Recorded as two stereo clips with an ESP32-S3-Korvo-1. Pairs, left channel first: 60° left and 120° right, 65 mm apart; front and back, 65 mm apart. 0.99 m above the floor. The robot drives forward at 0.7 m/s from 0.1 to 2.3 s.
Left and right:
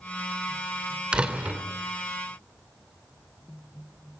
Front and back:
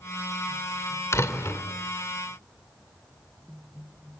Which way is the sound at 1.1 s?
45° right.